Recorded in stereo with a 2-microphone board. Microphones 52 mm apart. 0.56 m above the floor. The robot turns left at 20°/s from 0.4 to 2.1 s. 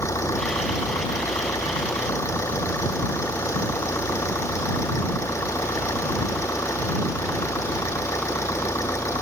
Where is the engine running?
105° left; by 9.2 s 70° left.